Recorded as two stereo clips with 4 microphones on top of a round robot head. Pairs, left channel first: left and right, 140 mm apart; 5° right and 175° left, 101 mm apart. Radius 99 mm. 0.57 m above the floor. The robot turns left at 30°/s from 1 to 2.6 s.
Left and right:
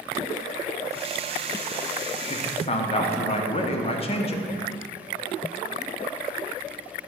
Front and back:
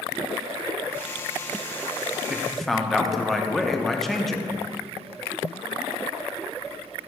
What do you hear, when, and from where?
2.3 s a man speaking: 90° left, 0.8 m; by 4.5 s 80° left, 0.8 m